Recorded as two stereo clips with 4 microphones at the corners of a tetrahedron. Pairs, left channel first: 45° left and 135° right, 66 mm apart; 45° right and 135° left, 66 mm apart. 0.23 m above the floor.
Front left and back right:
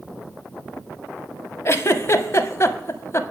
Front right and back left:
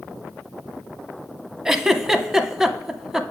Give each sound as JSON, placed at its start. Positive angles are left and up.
{"t": 1.6, "sound": "a giggle", "azimuth_deg": 55, "distance_m": 0.6}